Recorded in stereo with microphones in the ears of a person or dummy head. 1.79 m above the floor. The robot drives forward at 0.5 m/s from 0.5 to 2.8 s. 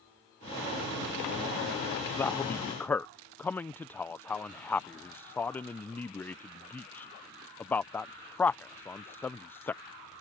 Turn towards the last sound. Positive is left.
turn(degrees=5)  # may be behind; listen again after turning